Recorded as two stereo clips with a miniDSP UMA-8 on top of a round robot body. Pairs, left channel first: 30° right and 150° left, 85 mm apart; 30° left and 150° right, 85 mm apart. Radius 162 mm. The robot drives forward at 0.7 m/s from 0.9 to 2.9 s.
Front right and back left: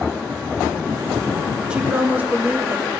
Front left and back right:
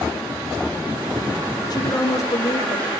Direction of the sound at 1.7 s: 70° left.